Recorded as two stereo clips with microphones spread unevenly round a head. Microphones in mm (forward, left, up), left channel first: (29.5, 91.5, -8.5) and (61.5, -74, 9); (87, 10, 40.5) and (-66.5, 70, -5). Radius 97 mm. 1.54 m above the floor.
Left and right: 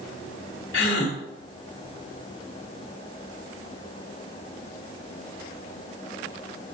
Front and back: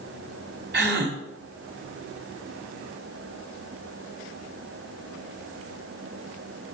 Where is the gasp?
130° left, 2 m.